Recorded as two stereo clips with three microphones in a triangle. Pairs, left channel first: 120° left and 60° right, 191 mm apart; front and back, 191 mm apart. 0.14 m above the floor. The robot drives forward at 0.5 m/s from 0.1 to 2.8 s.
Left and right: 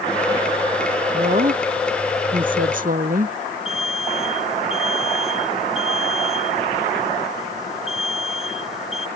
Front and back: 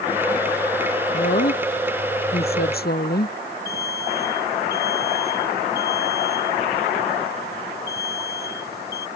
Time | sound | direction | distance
1.1 | a woman speaking | 20° right | ?
3.6 | an alarm | 30° left | ?